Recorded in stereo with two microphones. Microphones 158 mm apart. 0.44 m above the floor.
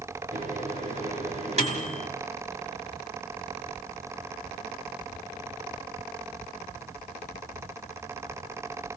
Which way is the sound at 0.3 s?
45° right (ahead or behind).